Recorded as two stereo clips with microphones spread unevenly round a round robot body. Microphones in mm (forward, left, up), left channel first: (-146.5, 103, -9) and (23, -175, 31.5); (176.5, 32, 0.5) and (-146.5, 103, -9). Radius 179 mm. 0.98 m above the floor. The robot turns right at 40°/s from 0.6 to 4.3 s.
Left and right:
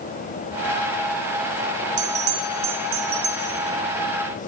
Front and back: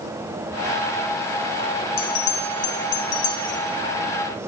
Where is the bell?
45° right, 1.4 m; by 3.6 s 20° left, 1.4 m.